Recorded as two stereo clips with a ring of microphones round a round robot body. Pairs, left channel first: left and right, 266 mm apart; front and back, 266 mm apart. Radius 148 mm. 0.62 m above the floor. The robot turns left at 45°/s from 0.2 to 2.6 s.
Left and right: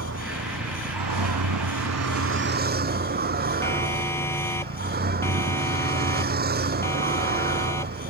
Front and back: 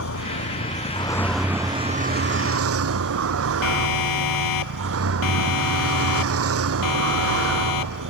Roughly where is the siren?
Ahead.